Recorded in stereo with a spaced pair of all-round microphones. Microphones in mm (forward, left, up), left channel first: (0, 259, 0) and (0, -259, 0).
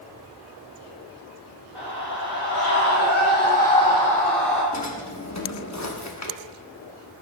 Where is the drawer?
35° left (ahead or behind), 0.9 m.